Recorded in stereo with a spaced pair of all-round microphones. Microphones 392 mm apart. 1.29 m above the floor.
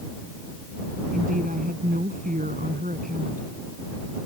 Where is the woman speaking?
20° right (ahead or behind).